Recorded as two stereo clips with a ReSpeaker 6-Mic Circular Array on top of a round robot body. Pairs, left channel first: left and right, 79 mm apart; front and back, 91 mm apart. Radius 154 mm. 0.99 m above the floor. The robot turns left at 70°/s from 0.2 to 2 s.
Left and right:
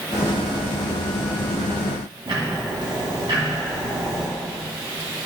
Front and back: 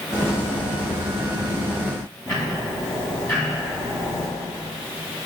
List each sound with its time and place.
2.3 s ticking: 60° right, 2 m